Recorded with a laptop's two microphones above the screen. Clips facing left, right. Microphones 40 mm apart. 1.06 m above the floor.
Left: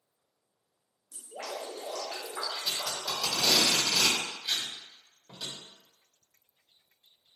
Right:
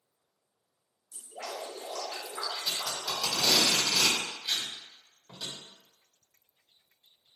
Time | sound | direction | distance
1.1 | dripping | 60° left (ahead or behind) | 1.0 m
2.6 | tape being pulled | 5° left (ahead or behind) | 1.3 m